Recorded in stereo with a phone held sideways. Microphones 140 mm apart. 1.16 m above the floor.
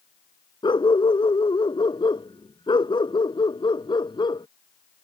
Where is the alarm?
I don't hear an alarm.